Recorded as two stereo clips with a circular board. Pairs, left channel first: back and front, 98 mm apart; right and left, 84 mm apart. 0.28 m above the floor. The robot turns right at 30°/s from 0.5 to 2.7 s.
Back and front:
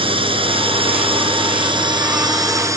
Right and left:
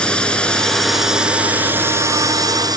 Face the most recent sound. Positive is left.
turn(degrees=55)